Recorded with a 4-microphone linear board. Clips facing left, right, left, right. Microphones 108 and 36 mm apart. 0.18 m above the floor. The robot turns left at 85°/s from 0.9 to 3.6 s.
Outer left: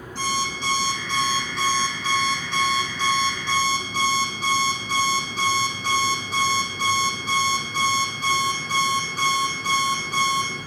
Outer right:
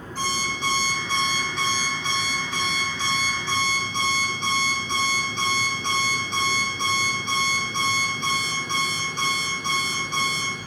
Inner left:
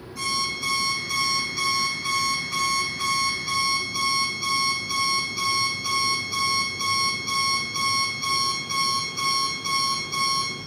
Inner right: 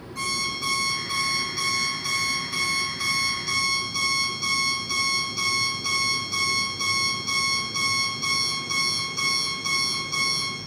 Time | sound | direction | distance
0.1 | an alarm clock | 125° right | 4 m